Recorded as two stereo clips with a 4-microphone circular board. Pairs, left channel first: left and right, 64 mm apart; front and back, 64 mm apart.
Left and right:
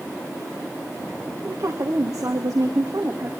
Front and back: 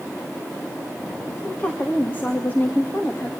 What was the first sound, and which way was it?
A woman speaking, 60° right.